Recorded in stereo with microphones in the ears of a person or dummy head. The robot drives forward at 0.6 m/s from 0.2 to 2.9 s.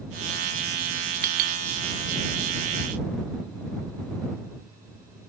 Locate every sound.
1.2 s a clink: 45° right (ahead or behind), 0.9 m; by 1.6 s 55° right (ahead or behind), 0.8 m